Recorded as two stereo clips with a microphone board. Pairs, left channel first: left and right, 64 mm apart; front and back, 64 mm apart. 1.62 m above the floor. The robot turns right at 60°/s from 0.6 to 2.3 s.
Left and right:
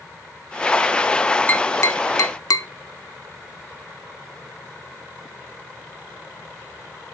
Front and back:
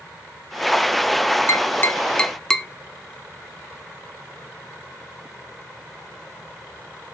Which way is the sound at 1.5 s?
30° left.